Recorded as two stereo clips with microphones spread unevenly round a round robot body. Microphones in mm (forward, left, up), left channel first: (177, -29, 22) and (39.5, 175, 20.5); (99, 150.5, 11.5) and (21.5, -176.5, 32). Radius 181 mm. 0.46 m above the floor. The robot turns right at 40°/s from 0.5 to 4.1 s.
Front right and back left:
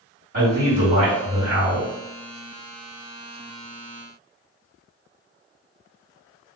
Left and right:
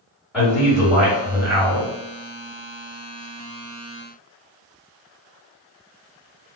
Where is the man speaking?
165° left, 1.8 m; by 1.9 s 135° right, 1.8 m.